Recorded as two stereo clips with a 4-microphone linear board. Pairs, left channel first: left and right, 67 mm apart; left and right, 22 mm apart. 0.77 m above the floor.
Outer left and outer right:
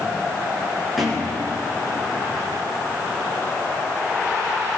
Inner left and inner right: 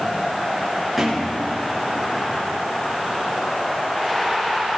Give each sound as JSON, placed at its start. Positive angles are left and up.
{"t": 1.0, "sound": "a thud", "side_deg": 0, "distance_m": 6.0}